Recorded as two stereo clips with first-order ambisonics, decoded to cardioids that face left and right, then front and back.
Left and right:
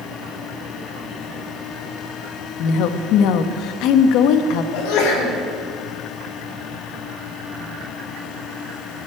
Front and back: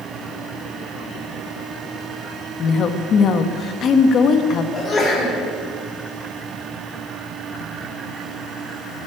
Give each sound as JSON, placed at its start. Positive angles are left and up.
{"t": 2.6, "sound": "a woman speaking", "azimuth_deg": 55, "distance_m": 1.2}
{"t": 4.7, "sound": "a sneeze", "azimuth_deg": 80, "distance_m": 4.0}